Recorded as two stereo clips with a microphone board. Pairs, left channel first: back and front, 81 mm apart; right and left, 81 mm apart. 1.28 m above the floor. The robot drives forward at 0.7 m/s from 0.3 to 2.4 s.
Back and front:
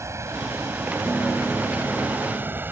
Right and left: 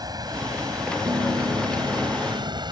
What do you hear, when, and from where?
0.0 s running water: 55° left; by 2.7 s 65° left
1.1 s a piano: 105° left; by 2.6 s 110° left